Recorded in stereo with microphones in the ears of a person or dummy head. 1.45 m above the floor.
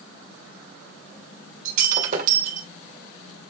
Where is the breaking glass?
45° right (ahead or behind), 2.5 m.